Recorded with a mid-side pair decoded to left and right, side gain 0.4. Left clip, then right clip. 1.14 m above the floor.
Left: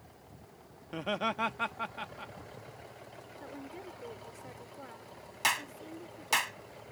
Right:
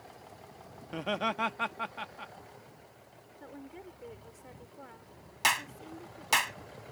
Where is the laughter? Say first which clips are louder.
Right 1 dB; 10° right.